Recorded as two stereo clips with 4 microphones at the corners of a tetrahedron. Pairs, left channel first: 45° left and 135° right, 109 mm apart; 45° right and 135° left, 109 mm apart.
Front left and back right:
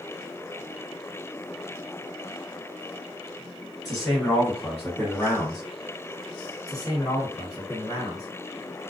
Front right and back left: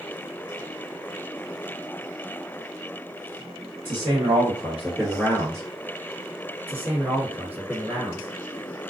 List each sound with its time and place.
3.9 s a man speaking: 130° left, 1.7 m; by 5.6 s 30° left, 1.6 m
6.7 s a man speaking: 75° left, 1.9 m